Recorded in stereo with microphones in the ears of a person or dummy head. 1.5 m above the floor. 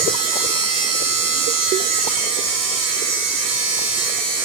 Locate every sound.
0.0 s a machine running: 30° right (ahead or behind), 1.0 m